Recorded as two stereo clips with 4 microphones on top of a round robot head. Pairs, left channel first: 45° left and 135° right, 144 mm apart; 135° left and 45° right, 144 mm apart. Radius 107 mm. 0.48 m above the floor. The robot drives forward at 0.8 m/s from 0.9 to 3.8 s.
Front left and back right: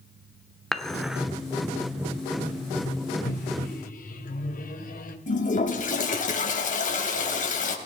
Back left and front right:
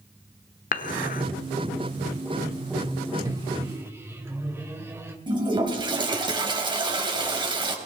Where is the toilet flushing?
15° left, 3 m.